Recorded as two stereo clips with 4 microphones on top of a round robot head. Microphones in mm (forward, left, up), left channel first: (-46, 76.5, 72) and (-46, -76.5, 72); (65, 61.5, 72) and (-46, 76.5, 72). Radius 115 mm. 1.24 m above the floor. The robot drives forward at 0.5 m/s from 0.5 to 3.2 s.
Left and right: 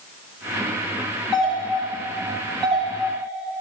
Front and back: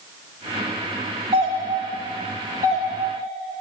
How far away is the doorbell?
About 2.5 m.